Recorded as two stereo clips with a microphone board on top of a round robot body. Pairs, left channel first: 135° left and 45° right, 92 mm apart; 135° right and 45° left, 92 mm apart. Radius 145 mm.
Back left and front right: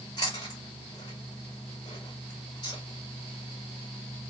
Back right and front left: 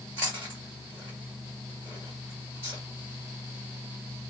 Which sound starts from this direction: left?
Chewing, at 0.2 s.